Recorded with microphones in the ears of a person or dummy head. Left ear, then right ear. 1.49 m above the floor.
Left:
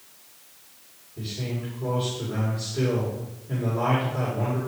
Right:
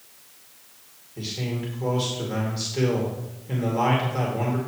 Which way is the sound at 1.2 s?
85° right.